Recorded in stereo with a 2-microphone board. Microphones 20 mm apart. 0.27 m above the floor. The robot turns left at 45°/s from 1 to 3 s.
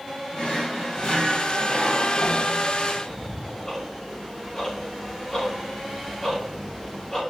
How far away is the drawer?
About 3.5 m.